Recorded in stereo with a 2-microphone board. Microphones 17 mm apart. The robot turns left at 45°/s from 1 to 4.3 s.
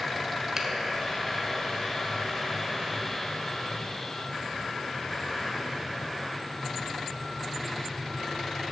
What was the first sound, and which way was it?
A finger snap, 25° right (ahead or behind).